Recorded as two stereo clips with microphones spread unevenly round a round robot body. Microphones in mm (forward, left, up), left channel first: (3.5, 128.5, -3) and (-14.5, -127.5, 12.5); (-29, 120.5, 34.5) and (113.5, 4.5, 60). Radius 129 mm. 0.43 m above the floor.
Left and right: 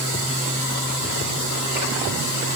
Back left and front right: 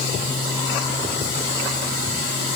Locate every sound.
Only background noise.